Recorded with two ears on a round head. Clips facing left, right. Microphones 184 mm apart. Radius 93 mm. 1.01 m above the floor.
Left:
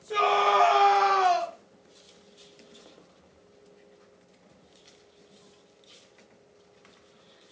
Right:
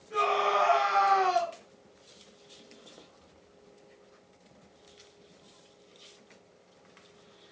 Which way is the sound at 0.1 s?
80° left.